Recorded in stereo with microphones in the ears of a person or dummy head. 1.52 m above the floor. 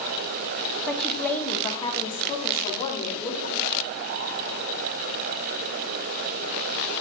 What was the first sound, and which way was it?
A woman speaking, centre (ahead or behind).